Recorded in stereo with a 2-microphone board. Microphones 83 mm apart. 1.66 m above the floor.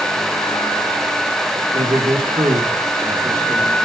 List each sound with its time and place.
1.7 s a man speaking: 65° right (ahead or behind), 1.4 m; by 3.9 s 40° right (ahead or behind), 2.5 m